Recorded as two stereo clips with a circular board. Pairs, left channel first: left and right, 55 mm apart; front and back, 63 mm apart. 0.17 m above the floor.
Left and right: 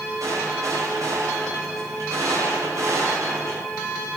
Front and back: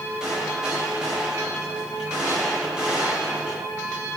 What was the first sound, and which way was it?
A gunshot, 100° right.